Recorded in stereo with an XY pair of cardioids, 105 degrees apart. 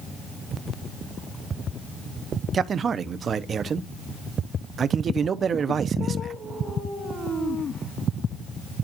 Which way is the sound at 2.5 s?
45° right.